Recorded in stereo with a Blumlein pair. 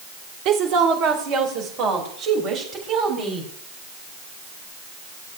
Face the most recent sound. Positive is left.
turn(degrees=-30)